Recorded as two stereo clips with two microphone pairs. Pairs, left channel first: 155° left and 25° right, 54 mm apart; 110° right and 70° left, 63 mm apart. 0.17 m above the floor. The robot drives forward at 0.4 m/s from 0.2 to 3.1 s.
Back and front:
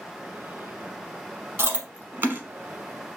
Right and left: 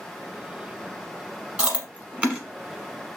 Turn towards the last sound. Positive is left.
turn(degrees=10)